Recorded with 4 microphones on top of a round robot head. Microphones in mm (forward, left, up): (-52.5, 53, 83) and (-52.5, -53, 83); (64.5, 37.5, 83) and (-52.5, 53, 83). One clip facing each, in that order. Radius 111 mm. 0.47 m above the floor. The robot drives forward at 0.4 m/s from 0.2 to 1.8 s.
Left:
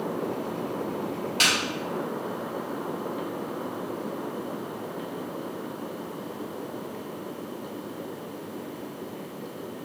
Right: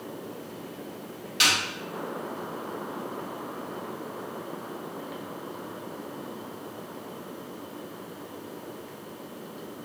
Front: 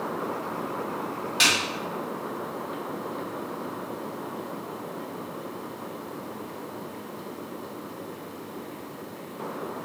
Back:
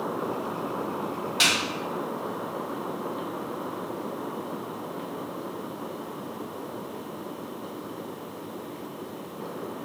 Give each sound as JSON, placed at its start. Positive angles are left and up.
{"t": 1.4, "sound": "a snare drum", "azimuth_deg": 85, "distance_m": 1.4}